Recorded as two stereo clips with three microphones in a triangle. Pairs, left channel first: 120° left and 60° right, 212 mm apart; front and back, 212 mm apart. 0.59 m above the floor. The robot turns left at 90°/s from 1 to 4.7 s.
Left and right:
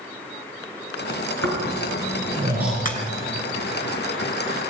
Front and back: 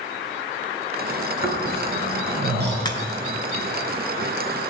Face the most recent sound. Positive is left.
turn(degrees=-95)